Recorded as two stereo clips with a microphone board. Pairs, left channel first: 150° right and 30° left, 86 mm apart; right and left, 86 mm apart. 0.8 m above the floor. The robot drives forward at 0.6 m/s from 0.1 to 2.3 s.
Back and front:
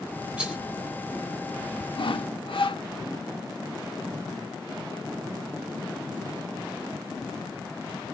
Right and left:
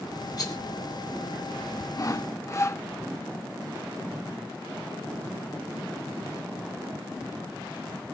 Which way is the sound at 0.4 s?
50° right.